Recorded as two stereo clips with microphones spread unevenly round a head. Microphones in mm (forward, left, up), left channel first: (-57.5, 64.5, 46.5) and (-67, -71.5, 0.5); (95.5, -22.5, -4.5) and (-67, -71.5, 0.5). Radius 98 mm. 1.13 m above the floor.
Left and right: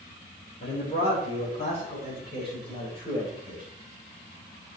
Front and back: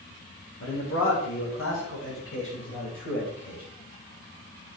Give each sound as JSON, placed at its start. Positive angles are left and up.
{"t": 0.6, "sound": "a man speaking", "azimuth_deg": 40, "distance_m": 3.5}